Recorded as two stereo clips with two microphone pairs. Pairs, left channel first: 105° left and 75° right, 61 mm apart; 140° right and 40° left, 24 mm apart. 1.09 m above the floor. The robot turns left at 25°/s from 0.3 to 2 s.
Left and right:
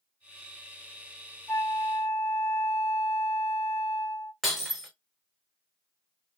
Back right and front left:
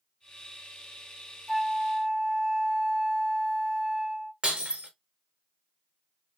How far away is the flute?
About 1.3 m.